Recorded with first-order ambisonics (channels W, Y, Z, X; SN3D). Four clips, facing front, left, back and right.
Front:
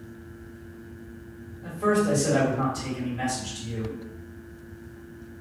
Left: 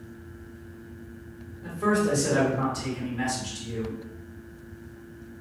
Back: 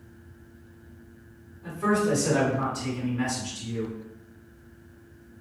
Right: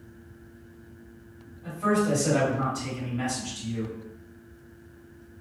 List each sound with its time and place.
1.6 s a man speaking: 65° left, 1.7 m